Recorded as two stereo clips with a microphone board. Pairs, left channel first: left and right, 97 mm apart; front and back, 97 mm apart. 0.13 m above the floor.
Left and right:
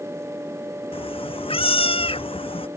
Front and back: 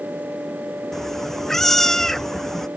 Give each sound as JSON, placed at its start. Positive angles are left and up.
{"t": 0.9, "sound": "a cat meowing", "azimuth_deg": 85}